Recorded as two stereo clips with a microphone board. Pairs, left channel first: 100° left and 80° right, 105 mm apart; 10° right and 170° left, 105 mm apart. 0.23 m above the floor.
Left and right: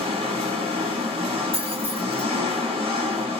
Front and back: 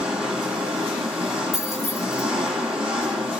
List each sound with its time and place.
0.0 s an engine running: 110° right, 2.5 m
1.5 s keys jangling: 100° right, 1.7 m